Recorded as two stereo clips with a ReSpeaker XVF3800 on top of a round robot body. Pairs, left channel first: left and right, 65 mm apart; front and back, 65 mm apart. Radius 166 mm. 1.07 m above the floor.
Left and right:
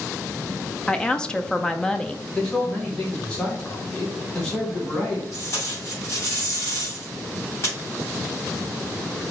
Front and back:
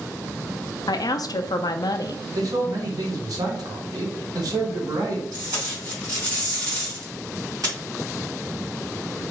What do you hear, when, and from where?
0.9 s a woman speaking: 10° left, 0.5 m
2.4 s a man speaking: 165° left, 1.4 m
5.3 s tape being pulled: 145° left, 2.5 m